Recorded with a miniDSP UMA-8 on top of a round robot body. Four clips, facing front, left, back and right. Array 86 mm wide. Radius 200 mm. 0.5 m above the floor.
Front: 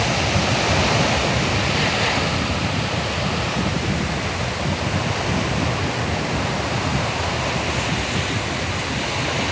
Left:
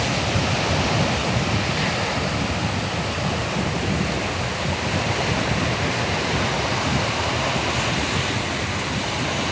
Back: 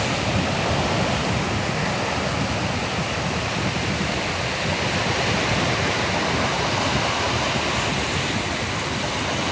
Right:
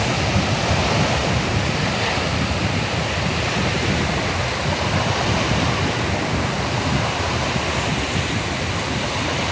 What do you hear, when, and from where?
Only background noise.